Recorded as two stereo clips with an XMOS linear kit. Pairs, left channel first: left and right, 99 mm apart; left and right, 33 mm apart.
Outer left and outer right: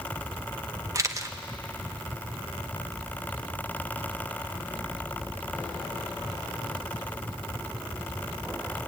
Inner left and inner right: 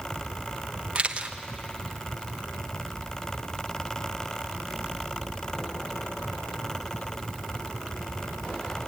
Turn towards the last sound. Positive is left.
turn(degrees=-35)  # may be behind; listen again after turning